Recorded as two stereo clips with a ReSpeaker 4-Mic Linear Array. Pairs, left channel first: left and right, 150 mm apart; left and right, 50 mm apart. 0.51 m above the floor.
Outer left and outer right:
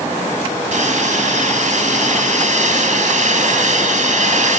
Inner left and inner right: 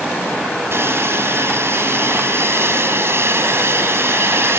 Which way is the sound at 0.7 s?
55° right (ahead or behind).